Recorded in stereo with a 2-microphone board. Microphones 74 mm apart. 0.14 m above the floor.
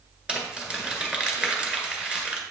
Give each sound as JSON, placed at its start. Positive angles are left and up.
{"t": 0.3, "sound": "crumpling", "side_deg": -15, "distance_m": 1.4}